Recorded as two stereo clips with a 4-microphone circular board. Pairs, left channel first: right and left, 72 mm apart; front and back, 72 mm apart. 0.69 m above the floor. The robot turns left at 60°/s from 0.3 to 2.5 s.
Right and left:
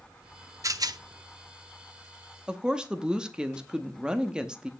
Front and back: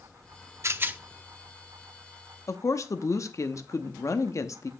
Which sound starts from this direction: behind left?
A rattle, at 0.6 s.